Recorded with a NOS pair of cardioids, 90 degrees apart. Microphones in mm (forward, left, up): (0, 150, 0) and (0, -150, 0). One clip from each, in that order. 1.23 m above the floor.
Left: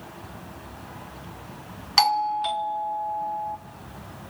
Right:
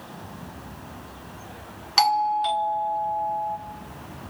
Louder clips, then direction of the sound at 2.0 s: Right 1 dB; 10° left.